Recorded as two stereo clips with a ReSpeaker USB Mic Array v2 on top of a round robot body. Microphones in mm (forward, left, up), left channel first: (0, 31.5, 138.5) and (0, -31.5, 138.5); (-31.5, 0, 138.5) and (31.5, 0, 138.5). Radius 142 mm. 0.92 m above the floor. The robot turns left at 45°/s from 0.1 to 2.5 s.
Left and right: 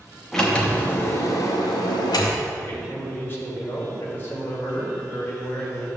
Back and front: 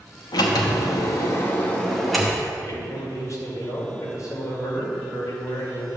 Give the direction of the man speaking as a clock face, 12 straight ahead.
7 o'clock.